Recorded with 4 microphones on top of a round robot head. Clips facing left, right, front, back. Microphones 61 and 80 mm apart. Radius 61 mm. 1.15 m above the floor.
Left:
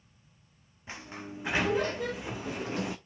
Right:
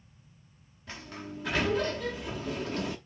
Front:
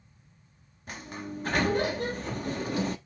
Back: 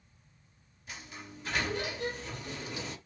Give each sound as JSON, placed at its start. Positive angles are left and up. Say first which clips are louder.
{"t": 0.9, "sound": "a sliding door", "louder": "even, front 8 dB", "azimuth_deg": 15, "distance_m": 0.7}